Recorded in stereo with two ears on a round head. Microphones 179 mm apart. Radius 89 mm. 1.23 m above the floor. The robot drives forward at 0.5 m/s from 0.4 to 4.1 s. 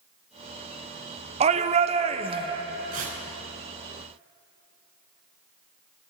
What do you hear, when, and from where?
1.4 s a shout: 30° right (ahead or behind), 0.6 m; by 2.6 s 25° right (ahead or behind), 0.7 m
2.9 s tearing paper: 45° right (ahead or behind), 5.5 m; by 3.2 s 50° right (ahead or behind), 5.5 m